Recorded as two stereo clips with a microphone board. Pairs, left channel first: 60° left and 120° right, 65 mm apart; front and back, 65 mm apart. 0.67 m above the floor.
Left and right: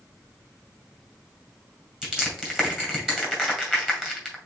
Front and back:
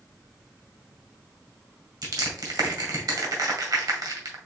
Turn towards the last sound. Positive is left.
turn(degrees=160)